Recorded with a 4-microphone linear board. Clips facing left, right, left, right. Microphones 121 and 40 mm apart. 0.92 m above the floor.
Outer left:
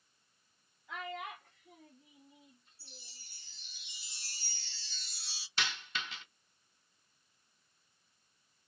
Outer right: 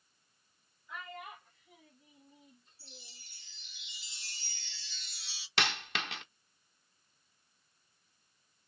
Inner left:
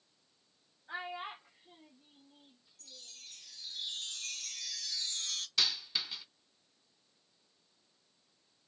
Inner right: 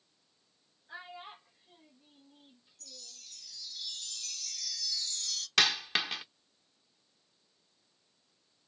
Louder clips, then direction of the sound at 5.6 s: Outer right 5 dB, inner right 7 dB; 70° right (ahead or behind).